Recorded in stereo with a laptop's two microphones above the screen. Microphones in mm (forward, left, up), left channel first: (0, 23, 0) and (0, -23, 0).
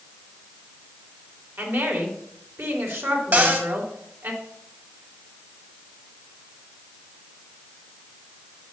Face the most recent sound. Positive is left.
turn(degrees=-50)  # may be behind; listen again after turning